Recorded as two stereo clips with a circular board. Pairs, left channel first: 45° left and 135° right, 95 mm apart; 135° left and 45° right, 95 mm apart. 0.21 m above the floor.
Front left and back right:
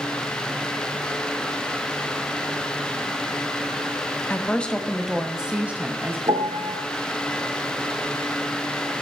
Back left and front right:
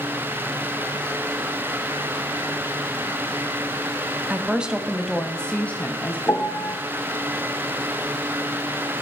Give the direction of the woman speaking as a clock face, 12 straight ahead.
12 o'clock.